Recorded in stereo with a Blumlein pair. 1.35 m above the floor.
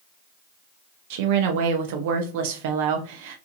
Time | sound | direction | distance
1.1 | a woman speaking | 50° right | 0.8 m